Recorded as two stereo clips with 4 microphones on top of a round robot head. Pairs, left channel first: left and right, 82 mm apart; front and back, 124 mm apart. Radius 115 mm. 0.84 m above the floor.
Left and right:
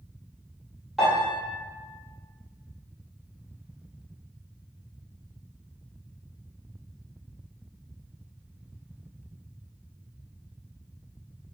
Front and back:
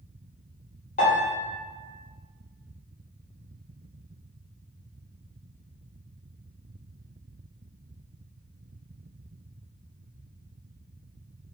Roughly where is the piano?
Ahead.